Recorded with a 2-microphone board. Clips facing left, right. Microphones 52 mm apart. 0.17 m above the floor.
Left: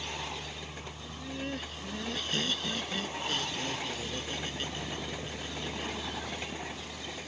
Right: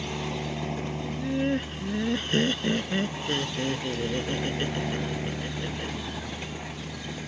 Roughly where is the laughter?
Right.